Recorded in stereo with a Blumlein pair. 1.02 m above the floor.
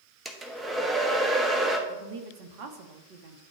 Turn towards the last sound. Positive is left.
turn(degrees=-40)